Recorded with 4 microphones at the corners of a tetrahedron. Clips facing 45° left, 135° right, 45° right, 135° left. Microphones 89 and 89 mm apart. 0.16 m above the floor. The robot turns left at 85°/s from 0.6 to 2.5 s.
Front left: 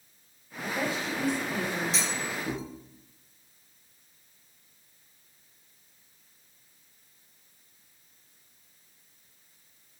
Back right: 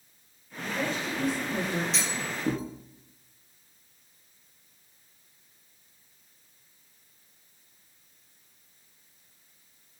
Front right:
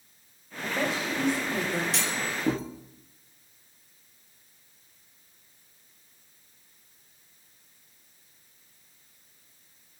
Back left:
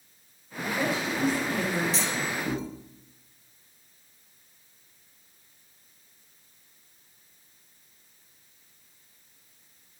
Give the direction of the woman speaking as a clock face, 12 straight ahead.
12 o'clock.